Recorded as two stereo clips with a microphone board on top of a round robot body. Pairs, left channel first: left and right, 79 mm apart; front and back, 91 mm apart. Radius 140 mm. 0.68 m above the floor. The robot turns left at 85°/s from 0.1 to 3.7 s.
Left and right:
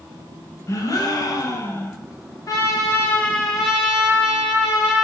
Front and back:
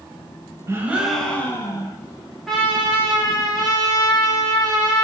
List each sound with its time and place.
0.7 s a gasp: 130° left, 0.6 m; by 2.0 s 20° left, 0.6 m
2.5 s a trumpet: 90° left, 1.0 m; by 5.0 s 15° right, 1.0 m